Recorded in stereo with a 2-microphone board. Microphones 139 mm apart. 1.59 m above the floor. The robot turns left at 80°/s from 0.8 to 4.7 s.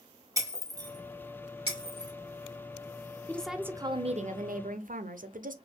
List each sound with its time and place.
0.4 s breaking glass: 25° right (ahead or behind), 1.4 m
3.3 s a woman speaking: 15° left, 0.6 m; by 5.5 s 100° right, 0.6 m